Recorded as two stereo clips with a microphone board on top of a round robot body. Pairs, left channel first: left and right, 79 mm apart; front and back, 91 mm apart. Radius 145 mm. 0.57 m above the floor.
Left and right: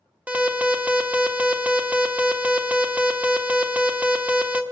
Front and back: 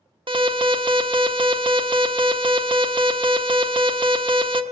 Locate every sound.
0.3 s an alarm: 160° right, 1.4 m